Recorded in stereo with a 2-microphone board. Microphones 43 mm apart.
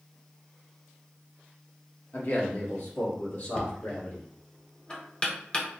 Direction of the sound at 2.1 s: 50° left (ahead or behind).